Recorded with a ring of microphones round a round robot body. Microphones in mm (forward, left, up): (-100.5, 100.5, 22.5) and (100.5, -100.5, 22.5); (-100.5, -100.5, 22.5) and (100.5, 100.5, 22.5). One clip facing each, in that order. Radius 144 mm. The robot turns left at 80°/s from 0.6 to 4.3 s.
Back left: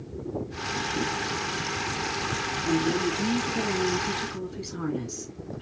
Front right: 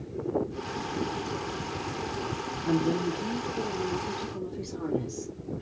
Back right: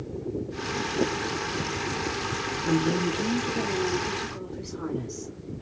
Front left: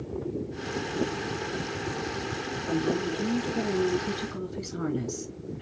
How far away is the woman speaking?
About 3 m.